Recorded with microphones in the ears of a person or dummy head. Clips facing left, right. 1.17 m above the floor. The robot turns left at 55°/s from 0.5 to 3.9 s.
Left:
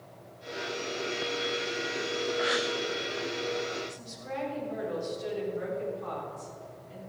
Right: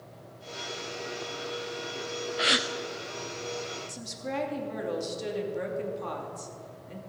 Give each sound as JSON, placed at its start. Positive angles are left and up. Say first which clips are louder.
{"t": 2.4, "sound": "a gasp", "louder": "even", "side_deg": -35, "distance_m": 0.5}
{"t": 3.9, "sound": "a woman speaking", "louder": "right 4 dB", "side_deg": -65, "distance_m": 2.5}